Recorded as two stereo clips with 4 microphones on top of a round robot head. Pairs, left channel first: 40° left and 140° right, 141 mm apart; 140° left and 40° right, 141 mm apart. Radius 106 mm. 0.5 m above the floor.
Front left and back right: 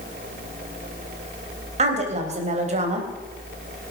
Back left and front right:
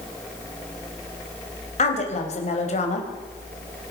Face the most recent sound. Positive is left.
turn(degrees=180)